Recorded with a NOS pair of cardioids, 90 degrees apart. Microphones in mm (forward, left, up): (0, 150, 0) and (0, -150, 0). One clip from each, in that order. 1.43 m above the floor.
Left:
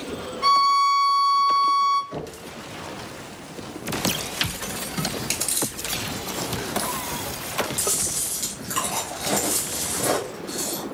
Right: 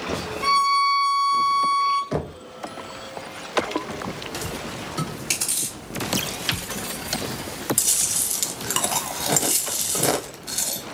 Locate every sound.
0.4 s a violin: 25° left, 1.2 m
2.1 s knocking: 45° right, 0.5 m
5.0 s chewing: 30° left, 1.4 m
7.8 s chewing: 60° right, 0.6 m